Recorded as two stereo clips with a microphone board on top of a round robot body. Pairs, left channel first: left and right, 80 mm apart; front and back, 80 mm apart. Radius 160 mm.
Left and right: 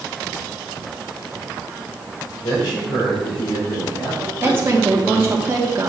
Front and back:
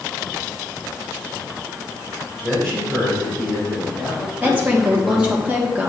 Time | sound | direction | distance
2.4 | a man speaking | 90° left | 3.5 m
4.4 | a woman speaking | 125° right | 1.5 m